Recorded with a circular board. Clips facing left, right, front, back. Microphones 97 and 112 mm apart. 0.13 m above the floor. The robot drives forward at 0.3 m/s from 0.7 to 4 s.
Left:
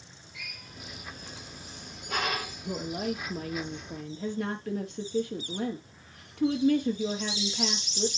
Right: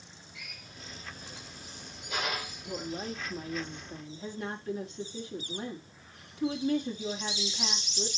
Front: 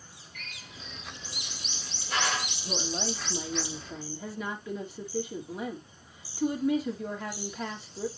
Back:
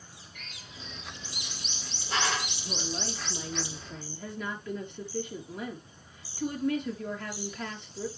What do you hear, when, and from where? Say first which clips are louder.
0.3 s a drill: left 4 dB, front 2 dB; 110° left, 7.5 m
2.6 s a woman speaking: left 5 dB, front 5 dB; 75° left, 4 m; by 8.1 s 85° left, 4 m